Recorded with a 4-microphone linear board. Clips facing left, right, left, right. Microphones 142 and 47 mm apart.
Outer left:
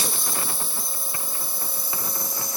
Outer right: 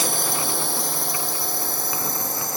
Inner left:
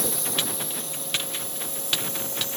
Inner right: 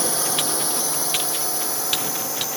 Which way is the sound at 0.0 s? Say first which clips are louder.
Outer right 5 dB, inner right 5 dB; 65° right (ahead or behind).